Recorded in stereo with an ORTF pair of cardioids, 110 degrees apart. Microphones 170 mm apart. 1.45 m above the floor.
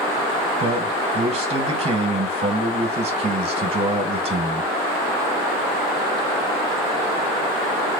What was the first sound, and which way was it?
A man speaking, 35° right.